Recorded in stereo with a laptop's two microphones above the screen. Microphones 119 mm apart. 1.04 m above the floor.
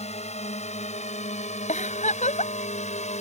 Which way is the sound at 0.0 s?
65° left (ahead or behind).